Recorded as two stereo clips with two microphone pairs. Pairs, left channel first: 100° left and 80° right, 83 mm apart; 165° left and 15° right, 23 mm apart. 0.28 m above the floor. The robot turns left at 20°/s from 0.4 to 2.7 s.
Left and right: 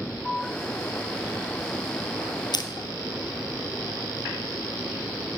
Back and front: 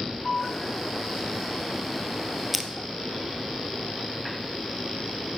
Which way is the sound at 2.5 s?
70° left.